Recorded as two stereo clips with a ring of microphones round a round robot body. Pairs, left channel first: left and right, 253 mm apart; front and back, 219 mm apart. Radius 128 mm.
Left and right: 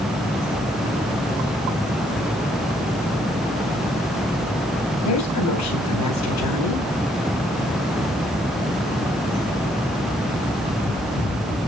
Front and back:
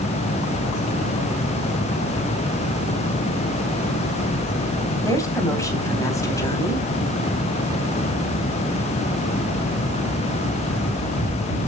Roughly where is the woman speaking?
Left.